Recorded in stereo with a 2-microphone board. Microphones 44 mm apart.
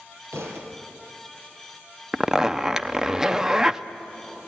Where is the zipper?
15° right (ahead or behind), 0.6 m.